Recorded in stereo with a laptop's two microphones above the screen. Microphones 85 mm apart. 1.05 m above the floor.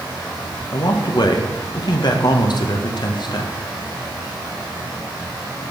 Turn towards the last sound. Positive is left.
turn(degrees=55)  # may be behind; listen again after turning